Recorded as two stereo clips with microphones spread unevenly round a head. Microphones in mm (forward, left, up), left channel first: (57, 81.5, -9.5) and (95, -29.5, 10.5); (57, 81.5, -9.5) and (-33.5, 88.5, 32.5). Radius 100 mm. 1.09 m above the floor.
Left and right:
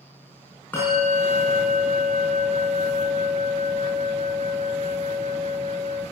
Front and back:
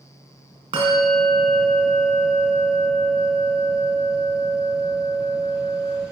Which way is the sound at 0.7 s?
170° right.